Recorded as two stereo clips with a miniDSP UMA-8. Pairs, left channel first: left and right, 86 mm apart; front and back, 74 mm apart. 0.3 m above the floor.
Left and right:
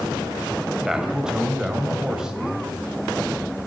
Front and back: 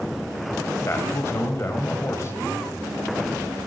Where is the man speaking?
15° right, 1.1 m.